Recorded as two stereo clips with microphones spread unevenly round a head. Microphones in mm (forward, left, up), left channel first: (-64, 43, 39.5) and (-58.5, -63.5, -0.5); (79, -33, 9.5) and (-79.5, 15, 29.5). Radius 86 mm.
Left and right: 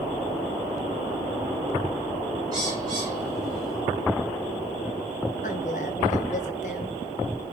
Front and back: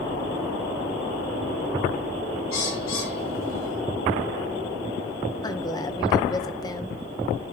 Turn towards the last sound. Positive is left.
turn(degrees=55)